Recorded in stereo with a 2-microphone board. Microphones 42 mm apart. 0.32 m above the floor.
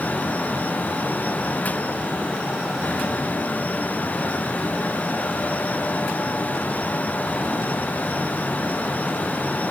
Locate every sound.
Only background noise.